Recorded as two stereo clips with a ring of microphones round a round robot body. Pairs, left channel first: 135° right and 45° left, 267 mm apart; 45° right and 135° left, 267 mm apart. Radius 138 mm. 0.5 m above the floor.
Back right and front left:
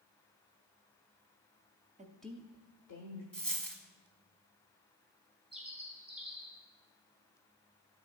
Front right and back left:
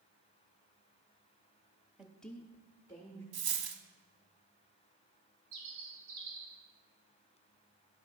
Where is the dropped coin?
140° left, 1.0 m.